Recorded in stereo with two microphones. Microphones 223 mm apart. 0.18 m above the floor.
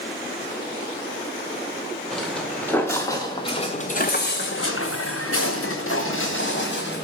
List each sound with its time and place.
2.1 s footsteps: centre (ahead or behind), 2 m; by 7.0 s 50° left (ahead or behind), 2 m